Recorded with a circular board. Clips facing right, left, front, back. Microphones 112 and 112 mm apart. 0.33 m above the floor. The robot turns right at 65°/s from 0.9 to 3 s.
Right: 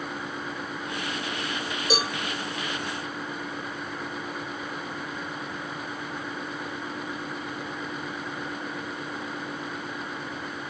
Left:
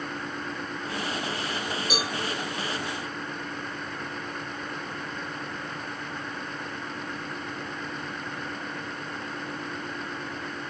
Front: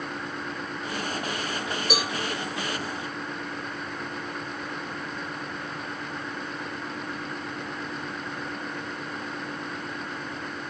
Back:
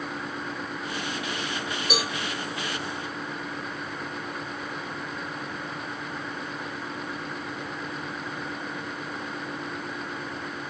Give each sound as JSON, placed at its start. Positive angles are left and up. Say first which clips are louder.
{"t": 1.9, "sound": "a cowbell", "louder": "right 6 dB, even", "azimuth_deg": -90, "distance_m": 1.5}